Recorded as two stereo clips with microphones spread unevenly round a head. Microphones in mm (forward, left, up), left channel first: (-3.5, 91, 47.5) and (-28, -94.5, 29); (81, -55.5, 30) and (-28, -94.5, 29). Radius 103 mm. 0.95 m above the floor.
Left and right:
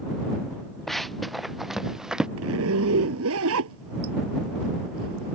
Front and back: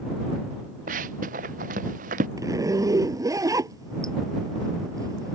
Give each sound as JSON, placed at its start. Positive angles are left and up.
{"t": 0.9, "sound": "running footsteps", "azimuth_deg": 170}
{"t": 2.4, "sound": "a zipper", "azimuth_deg": -100}